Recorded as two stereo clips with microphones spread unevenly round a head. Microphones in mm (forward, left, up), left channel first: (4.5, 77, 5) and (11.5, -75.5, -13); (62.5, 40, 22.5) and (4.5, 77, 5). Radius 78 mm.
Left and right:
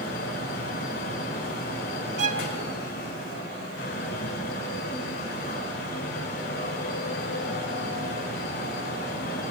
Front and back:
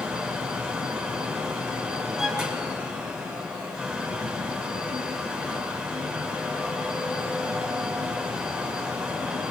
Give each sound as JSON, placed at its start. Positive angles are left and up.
{"t": 0.0, "sound": "a fan", "azimuth_deg": 65, "distance_m": 5.0}
{"t": 2.2, "sound": "a violin", "azimuth_deg": -110, "distance_m": 1.0}